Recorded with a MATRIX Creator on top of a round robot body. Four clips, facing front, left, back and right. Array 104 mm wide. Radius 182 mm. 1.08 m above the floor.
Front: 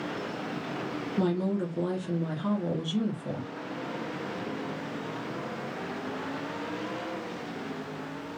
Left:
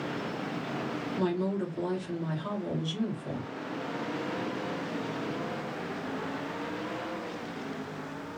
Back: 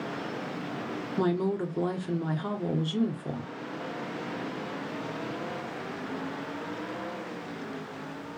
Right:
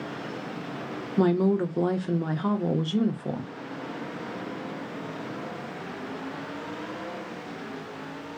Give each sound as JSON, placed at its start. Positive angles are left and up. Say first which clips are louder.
{"t": 1.2, "sound": "a woman speaking", "louder": "right 8 dB, back 1 dB", "azimuth_deg": -100, "distance_m": 0.8}